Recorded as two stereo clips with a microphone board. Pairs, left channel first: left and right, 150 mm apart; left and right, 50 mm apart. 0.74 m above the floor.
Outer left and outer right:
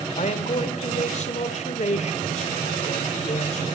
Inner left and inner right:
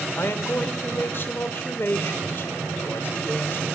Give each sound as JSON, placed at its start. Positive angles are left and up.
{"t": 0.2, "sound": "a man speaking", "side_deg": 50, "distance_m": 2.0}